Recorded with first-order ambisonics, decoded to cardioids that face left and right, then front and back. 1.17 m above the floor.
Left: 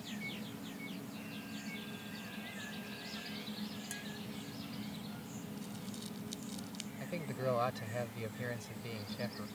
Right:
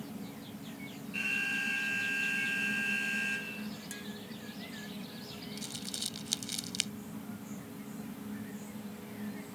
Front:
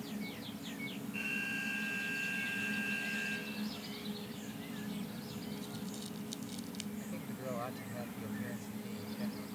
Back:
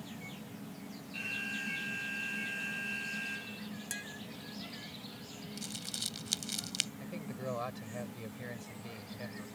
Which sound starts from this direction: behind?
Tapping, at 3.9 s.